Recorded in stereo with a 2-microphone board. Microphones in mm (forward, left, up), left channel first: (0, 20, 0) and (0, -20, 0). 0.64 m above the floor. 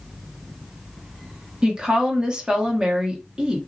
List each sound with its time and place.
1.6 s a woman speaking: 20° right (ahead or behind), 1.0 m